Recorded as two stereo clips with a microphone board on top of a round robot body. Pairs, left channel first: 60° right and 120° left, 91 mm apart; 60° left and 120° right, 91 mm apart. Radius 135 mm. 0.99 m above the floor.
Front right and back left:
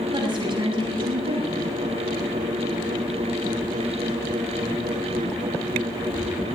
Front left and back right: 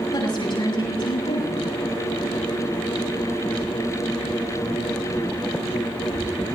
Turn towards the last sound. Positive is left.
turn(degrees=90)